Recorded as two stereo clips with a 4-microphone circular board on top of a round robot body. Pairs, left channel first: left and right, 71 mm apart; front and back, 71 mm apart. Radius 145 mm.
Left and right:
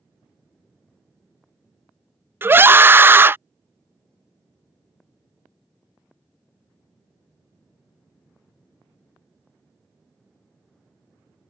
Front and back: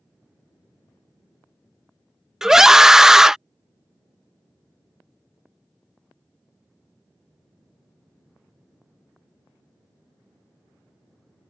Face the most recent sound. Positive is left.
turn(degrees=-105)